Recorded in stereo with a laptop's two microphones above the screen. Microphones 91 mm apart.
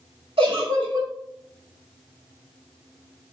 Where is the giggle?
75° right (ahead or behind), 3.5 m.